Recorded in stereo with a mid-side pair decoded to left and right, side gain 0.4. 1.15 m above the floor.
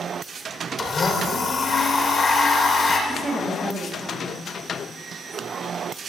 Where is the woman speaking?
25° right, 7 m.